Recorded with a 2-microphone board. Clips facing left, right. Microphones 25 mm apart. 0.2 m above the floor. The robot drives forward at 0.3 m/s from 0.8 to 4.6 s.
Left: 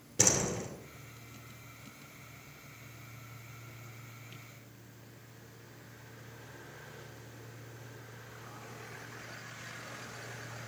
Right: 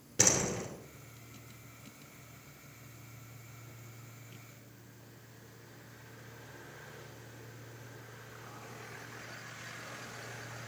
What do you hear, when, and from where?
0.2 s a door slam: 25° right (ahead or behind), 2.5 m